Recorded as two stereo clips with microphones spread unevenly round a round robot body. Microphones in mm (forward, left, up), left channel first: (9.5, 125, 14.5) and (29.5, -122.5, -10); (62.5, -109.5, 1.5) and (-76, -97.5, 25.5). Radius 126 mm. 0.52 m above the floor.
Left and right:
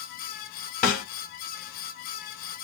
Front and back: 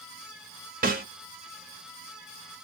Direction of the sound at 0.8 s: 155° left.